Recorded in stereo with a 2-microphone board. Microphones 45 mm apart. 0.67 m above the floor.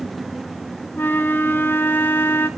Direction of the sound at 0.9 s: 50° left (ahead or behind).